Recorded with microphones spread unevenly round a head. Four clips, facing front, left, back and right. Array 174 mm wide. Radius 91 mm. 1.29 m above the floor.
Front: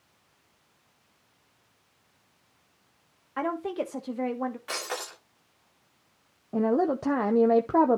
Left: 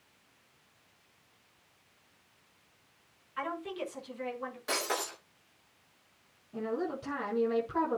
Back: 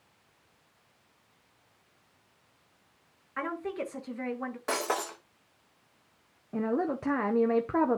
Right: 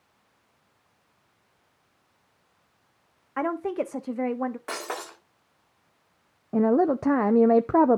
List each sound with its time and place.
3.4 s a woman speaking: 70° right, 1.3 m
4.7 s breaking glass: 160° right, 5.5 m
6.5 s a woman speaking: 75° right, 0.7 m